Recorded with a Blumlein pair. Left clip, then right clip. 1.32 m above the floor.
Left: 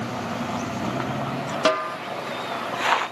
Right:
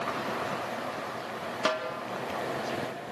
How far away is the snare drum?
About 1.5 m.